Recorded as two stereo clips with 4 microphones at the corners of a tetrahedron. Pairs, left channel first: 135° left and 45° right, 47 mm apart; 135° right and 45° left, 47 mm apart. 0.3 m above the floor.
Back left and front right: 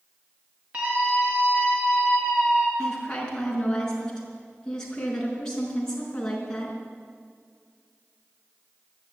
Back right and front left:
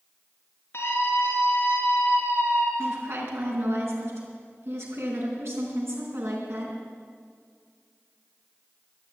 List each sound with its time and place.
0.7 s a scream: 105° right, 5 m
2.8 s a woman speaking: 60° left, 4.5 m